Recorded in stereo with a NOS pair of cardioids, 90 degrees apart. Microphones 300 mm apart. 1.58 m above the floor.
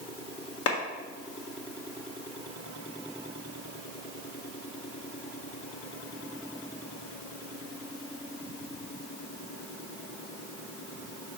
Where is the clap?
55° left, 1.4 m.